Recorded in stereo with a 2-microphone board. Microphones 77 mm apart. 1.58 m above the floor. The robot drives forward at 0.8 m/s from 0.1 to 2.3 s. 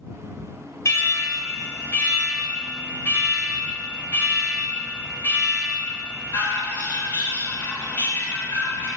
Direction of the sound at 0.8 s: 45° left (ahead or behind).